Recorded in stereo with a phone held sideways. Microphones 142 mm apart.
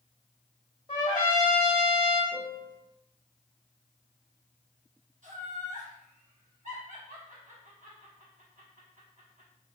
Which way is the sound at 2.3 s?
10° left (ahead or behind).